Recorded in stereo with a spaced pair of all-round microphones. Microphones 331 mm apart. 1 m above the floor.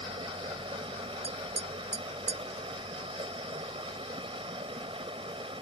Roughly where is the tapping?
Right.